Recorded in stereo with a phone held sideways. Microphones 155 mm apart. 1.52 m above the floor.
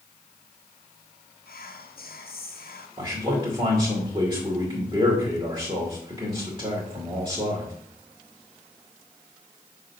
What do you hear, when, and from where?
1.5 s whispering: 75° left (ahead or behind), 0.6 m
3.0 s a man speaking: 30° right (ahead or behind), 2 m